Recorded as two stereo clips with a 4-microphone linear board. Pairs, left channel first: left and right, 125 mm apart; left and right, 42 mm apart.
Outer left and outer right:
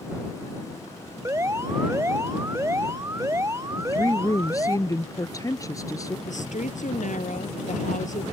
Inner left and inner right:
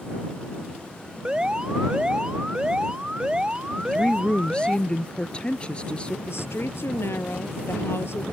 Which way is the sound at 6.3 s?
80° left.